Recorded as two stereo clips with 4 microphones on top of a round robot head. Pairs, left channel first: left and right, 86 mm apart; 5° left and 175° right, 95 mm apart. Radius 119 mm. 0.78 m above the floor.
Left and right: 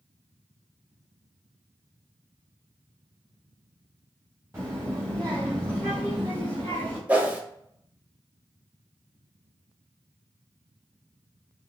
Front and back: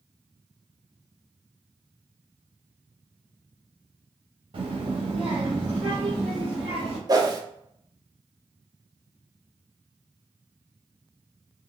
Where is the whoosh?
155° right, 0.8 m.